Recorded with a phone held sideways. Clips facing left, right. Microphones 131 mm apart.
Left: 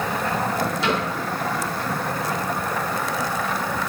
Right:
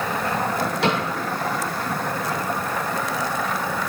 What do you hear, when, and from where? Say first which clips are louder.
0.8 s a cupboard door: right 3 dB; 75° right (ahead or behind), 6.5 m